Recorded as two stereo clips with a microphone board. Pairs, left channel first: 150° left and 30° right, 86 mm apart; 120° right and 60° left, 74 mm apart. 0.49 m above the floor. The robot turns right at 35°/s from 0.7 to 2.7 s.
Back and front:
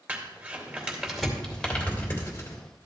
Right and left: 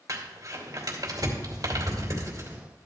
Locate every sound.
0.1 s crumpling: 35° left, 2.5 m; by 2.6 s 100° left, 2.5 m